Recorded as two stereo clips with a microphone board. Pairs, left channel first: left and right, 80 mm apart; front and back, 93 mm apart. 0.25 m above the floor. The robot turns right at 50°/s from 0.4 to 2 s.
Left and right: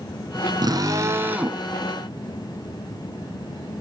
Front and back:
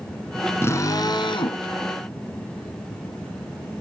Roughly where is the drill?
Ahead right.